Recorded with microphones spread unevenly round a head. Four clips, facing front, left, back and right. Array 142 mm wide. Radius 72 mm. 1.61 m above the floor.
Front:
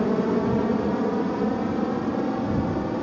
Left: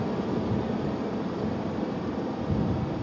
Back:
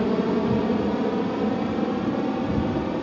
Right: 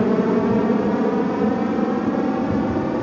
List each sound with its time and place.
0.0 s an aircraft: 95° right